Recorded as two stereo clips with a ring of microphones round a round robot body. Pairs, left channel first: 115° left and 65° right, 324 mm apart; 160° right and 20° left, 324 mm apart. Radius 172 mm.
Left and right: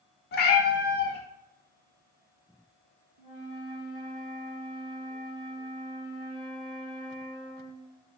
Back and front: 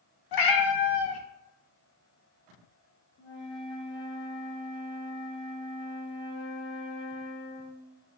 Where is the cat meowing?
175° left, 0.7 m.